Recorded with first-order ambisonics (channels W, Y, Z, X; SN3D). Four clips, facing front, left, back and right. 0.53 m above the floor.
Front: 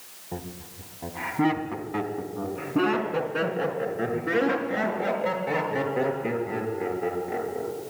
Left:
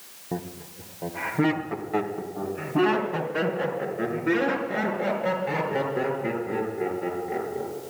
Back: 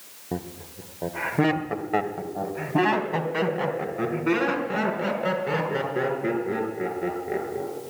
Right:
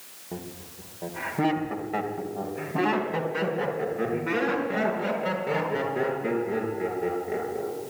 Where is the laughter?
150° left, 0.9 m; by 7.9 s 165° right, 8 m.